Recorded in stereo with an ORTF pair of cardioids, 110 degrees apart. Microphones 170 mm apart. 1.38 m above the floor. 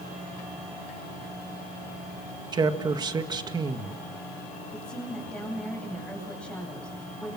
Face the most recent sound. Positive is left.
turn(degrees=5)